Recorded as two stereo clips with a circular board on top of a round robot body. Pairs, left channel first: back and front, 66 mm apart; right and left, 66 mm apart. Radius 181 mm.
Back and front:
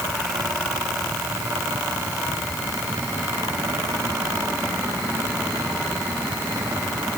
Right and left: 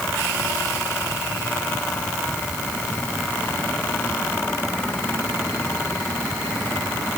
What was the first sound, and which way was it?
Only background noise.